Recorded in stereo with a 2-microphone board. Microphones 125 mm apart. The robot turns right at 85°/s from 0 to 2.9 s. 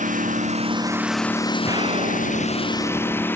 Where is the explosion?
155° right; by 3.3 s 50° right.